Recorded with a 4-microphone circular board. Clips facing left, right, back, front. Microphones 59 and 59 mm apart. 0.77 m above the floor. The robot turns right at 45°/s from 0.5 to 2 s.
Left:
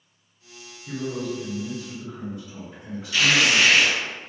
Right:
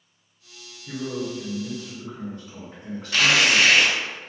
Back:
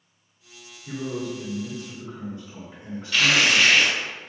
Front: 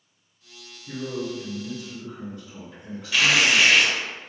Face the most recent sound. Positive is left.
turn(degrees=-85)